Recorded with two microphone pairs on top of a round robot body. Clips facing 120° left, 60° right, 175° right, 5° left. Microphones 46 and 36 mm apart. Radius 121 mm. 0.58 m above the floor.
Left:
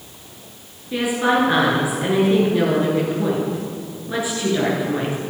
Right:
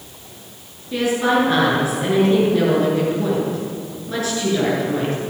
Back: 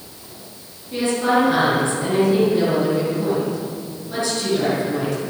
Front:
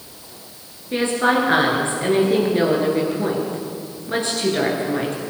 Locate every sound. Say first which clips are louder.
0.9 s a woman speaking: right 1 dB, even; 45° left, 9 m